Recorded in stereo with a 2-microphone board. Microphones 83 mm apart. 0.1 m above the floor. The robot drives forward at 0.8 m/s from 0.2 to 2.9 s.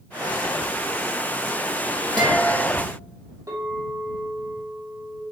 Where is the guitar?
60° right (ahead or behind), 2.5 m; by 2.8 s 50° right (ahead or behind), 3 m.